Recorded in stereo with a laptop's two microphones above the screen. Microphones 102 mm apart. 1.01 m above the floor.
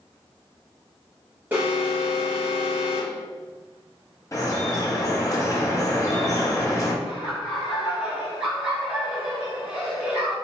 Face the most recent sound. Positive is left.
turn(degrees=-10)  # may be behind; listen again after turning